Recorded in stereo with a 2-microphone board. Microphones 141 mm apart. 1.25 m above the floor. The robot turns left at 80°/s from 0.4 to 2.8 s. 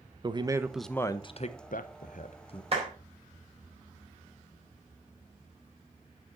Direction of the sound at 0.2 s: 150° right.